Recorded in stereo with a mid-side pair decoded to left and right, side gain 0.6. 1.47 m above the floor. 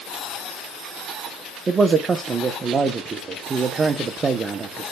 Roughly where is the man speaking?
Ahead right.